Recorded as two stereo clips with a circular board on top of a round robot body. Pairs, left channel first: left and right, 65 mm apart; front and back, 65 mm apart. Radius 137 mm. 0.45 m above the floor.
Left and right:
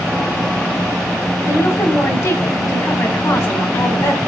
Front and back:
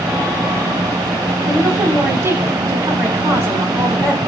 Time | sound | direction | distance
1.5 | a woman speaking | 130° left | 6.5 m